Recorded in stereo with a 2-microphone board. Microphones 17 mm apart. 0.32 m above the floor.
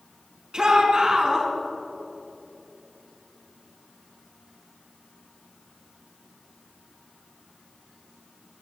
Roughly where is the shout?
Right.